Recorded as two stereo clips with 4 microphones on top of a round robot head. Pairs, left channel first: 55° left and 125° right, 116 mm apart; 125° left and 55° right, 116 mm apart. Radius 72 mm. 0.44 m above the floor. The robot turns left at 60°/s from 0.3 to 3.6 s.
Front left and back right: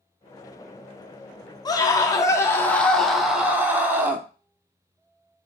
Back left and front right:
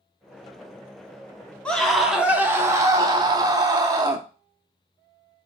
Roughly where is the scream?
Ahead left.